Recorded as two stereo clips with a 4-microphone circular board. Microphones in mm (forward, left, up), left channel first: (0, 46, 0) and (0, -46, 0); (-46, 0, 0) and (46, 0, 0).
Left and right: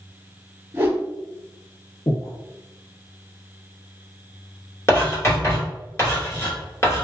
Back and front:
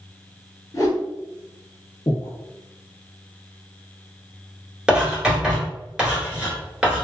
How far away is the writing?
About 1.8 m.